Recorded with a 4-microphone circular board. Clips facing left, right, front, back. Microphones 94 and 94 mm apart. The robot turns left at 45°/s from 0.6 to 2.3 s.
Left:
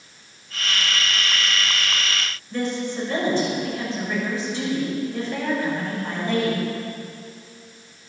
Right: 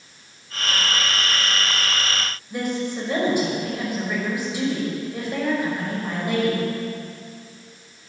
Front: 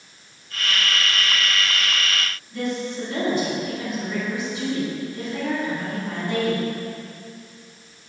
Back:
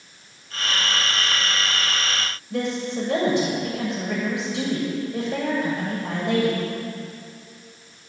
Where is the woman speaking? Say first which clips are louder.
Even, back 2 dB; 170° right, 6 m.